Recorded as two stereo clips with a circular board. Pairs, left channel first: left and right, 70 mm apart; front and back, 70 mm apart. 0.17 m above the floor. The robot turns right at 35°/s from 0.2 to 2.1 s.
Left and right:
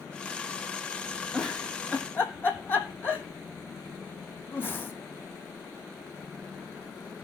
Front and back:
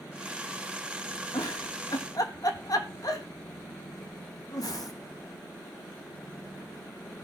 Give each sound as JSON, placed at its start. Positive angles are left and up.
{"t": 1.3, "sound": "a giggle", "azimuth_deg": 0, "distance_m": 1.9}